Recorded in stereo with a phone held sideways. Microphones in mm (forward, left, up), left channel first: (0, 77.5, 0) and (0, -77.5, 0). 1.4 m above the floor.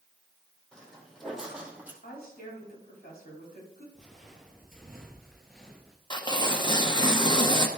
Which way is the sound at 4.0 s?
5° left (ahead or behind).